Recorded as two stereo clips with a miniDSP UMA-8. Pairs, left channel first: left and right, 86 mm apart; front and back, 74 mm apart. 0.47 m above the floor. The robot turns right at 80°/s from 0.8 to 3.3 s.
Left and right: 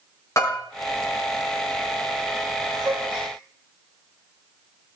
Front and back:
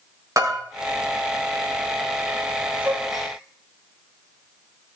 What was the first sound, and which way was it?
A bell, 140° left.